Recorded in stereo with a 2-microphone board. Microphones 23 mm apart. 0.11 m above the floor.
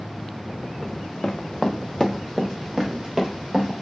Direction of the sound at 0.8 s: 75° left (ahead or behind).